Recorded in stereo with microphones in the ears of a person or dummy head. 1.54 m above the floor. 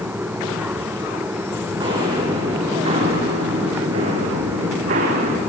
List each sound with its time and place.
1.8 s footsteps: 25° right (ahead or behind), 6 m; by 5.4 s 50° right (ahead or behind), 6 m